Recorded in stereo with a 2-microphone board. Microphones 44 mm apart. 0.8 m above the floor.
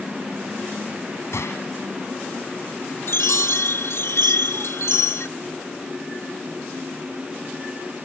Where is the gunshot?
85° left.